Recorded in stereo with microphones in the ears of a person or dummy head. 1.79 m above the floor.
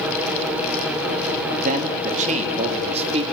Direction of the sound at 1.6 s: 45° right (ahead or behind).